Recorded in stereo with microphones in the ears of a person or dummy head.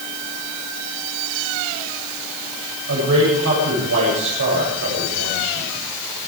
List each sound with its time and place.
2.9 s a man speaking: 70° right (ahead or behind), 8.5 m